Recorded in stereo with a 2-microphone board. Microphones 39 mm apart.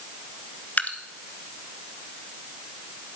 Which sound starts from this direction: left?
Dripping, at 0.8 s.